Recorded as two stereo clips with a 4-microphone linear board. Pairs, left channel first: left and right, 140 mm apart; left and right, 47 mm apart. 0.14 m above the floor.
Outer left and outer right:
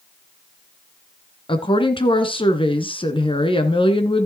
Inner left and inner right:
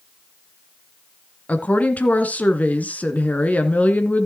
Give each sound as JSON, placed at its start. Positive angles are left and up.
{"t": 1.5, "sound": "a woman speaking", "side_deg": 35, "distance_m": 2.0}